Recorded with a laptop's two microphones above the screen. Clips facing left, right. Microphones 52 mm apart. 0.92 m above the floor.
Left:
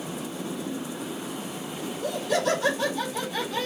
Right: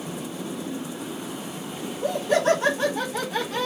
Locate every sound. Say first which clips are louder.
1.8 s laughter: right 4 dB; 20° right (ahead or behind), 0.8 m; by 3.7 s 45° right (ahead or behind), 1.5 m